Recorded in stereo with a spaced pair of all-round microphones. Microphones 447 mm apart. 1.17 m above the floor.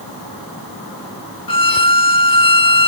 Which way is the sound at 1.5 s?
55° left (ahead or behind).